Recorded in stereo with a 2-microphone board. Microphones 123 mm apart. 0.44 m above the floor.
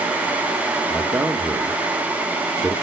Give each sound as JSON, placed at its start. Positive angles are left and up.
{"t": 0.9, "sound": "a man speaking", "side_deg": -20, "distance_m": 0.7}